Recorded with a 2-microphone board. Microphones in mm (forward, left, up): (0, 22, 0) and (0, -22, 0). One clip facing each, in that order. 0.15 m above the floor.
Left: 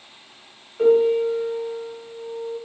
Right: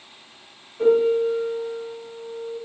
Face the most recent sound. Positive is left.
turn(degrees=35)  # may be behind; listen again after turning